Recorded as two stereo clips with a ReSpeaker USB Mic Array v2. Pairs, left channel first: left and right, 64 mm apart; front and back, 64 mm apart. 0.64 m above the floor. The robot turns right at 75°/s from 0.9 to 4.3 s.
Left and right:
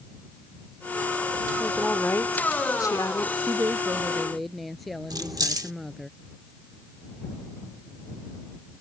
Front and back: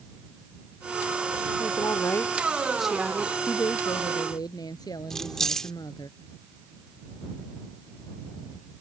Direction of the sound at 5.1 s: 80° right.